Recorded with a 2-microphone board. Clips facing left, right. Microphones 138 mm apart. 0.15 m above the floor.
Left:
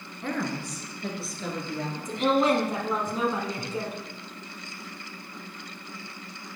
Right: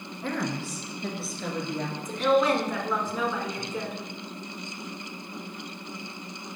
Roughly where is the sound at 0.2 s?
Centre.